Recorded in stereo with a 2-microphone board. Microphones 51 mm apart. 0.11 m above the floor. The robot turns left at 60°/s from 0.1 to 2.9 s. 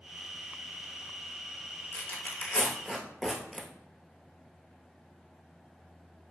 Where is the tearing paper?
50° left (ahead or behind), 0.5 m; by 3.7 s centre (ahead or behind), 0.5 m.